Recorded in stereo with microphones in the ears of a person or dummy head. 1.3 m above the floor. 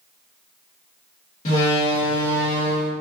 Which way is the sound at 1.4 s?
45° left (ahead or behind).